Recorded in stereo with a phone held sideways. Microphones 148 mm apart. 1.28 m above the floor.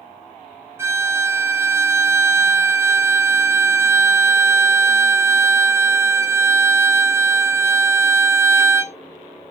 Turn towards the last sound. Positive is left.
turn(degrees=-15)  # may be behind; listen again after turning